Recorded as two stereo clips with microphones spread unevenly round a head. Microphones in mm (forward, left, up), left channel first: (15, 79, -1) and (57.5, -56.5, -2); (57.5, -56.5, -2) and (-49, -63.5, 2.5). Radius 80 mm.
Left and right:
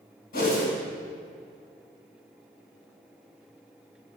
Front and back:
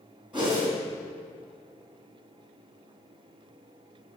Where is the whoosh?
90° left, 2.5 m.